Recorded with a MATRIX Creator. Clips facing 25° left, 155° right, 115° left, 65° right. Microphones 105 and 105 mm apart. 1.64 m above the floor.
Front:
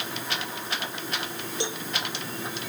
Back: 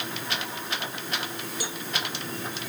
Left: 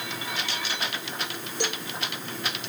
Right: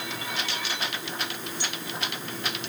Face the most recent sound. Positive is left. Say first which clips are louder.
# front 7 dB, left 10 dB
turn(degrees=85)